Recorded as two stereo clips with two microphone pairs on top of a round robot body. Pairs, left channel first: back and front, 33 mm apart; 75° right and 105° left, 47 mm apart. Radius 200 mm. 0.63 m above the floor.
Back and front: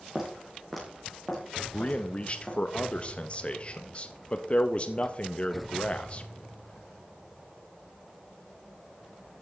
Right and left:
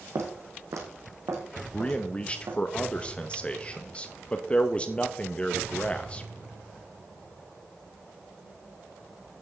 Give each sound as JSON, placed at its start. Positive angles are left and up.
{"t": 0.1, "sound": "footsteps", "azimuth_deg": 80, "distance_m": 1.5}
{"t": 1.7, "sound": "a man speaking", "azimuth_deg": -135, "distance_m": 0.9}